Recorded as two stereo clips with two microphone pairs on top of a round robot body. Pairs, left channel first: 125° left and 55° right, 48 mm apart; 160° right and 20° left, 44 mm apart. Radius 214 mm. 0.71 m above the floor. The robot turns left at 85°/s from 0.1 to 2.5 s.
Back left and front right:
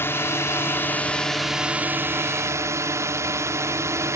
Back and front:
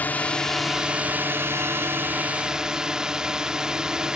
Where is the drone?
155° left; by 4.2 s 50° right.